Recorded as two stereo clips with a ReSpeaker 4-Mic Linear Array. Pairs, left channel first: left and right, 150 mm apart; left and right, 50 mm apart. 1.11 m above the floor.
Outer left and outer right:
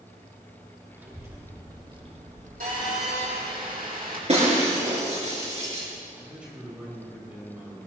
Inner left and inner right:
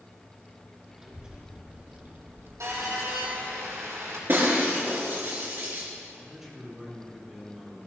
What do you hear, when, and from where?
0.9 s a child speaking: 15° right (ahead or behind), 2.5 m; by 3.6 s 70° right (ahead or behind), 1.4 m
2.6 s a phone buzzing: 80° right, 6.5 m
4.3 s breaking glass: 50° right (ahead or behind), 4 m
6.2 s a man speaking: 10° right (ahead or behind), 4.5 m